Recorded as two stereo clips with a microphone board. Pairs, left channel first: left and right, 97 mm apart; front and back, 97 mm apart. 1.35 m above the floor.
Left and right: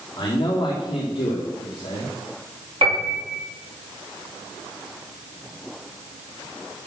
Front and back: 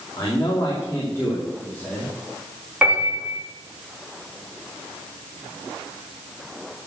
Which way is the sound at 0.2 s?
50° left.